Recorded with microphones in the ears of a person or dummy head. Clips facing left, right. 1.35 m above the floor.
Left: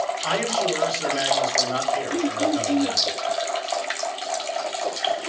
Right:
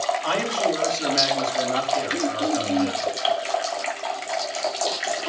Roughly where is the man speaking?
Centre.